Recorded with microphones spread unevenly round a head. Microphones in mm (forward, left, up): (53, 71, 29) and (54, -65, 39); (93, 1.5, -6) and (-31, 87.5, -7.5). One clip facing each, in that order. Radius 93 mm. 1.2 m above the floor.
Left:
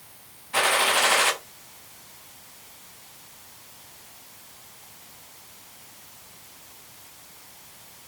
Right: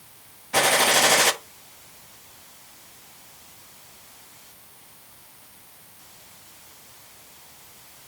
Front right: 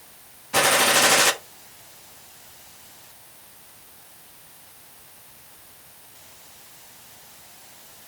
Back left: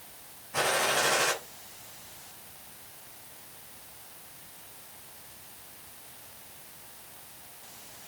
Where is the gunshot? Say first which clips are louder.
Right 3 dB, front right 7 dB; 45° right, 1.2 m.